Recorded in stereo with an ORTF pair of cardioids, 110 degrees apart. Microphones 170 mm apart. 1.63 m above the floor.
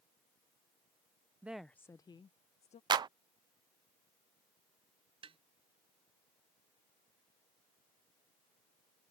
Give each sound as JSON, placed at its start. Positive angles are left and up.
{"t": 1.4, "sound": "a woman speaking", "azimuth_deg": -10}
{"t": 2.9, "sound": "a clap", "azimuth_deg": -30}
{"t": 5.2, "sound": "tapping", "azimuth_deg": -35}